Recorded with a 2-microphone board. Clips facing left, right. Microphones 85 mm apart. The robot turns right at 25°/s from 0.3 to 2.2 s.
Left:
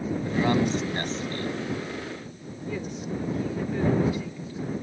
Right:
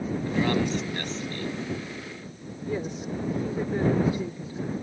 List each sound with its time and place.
0.2 s a man speaking: 15° left; by 1.6 s 45° left
2.7 s a woman speaking: 35° right (ahead or behind)